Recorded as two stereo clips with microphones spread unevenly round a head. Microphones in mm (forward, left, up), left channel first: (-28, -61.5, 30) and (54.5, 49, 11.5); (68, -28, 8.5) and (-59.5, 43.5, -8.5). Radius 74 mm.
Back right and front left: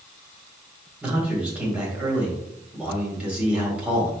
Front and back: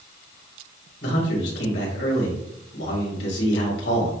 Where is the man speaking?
25° right, 3.5 m.